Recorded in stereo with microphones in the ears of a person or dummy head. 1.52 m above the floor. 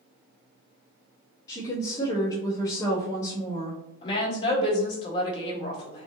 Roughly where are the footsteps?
No footsteps in this recording.